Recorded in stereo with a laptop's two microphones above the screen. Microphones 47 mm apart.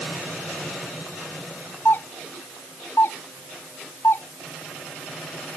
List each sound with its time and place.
1.9 s a doorbell: 55° left (ahead or behind)